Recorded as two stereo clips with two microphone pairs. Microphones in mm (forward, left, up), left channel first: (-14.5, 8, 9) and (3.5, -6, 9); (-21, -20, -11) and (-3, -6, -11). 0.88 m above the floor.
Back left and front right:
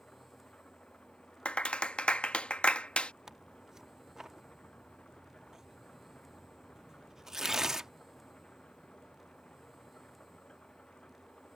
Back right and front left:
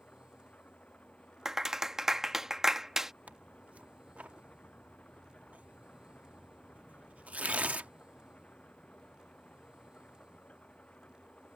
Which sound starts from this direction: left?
A clap, at 1.4 s.